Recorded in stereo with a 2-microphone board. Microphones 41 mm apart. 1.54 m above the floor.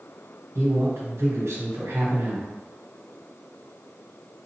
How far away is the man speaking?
About 1.3 m.